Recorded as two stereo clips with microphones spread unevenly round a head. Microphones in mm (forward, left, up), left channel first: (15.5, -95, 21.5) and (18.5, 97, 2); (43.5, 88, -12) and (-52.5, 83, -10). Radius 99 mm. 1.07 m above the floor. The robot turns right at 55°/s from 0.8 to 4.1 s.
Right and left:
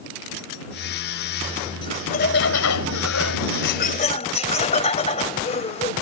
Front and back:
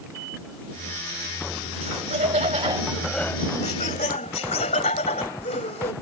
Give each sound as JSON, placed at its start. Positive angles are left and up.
{"t": 1.8, "sound": "laughter", "azimuth_deg": -160}